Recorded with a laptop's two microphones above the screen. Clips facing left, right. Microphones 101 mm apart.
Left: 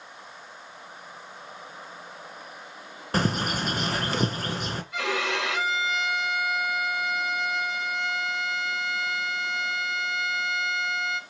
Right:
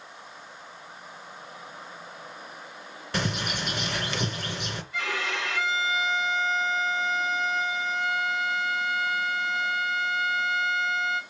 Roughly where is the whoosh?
No whoosh in this recording.